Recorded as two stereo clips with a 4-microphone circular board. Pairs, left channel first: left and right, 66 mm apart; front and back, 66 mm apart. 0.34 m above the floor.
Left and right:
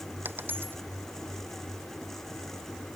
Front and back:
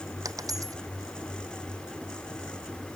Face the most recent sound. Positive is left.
turn(degrees=-150)